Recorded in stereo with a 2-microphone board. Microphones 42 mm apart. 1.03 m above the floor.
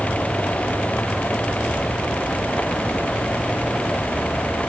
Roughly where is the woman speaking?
No woman speaking in this recording.